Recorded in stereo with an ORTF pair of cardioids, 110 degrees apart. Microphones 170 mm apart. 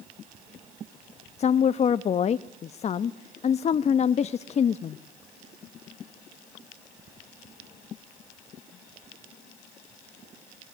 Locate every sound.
1.4 s a woman speaking: 40° left, 1.0 m